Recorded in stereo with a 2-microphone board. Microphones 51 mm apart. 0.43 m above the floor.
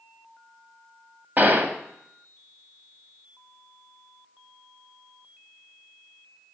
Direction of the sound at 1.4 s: 40° right (ahead or behind).